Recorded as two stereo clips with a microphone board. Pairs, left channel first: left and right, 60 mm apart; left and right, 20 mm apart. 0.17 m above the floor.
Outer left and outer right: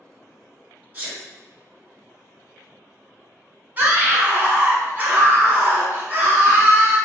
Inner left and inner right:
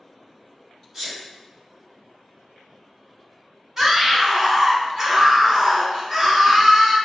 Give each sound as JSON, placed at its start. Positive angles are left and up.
{"t": 0.9, "sound": "a sneeze", "side_deg": -25, "distance_m": 1.8}
{"t": 3.8, "sound": "a scream", "side_deg": -30, "distance_m": 1.1}